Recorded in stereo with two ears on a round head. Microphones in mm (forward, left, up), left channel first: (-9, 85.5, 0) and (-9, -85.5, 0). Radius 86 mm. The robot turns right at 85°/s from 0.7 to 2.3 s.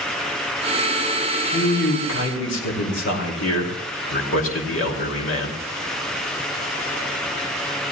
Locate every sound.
1.5 s a man speaking: 30° left, 3 m; by 5.6 s 100° left, 3 m